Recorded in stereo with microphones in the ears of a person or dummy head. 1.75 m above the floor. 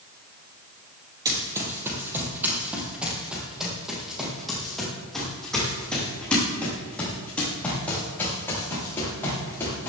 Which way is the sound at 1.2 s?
20° right (ahead or behind).